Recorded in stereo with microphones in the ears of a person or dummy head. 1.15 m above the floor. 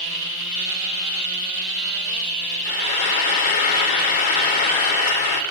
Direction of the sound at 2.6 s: 55° left (ahead or behind).